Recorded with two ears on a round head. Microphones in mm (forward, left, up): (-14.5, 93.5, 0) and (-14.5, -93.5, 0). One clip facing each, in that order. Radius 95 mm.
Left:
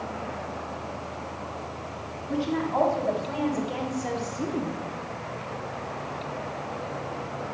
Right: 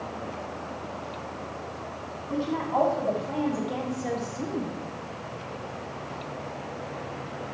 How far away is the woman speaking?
About 4 m.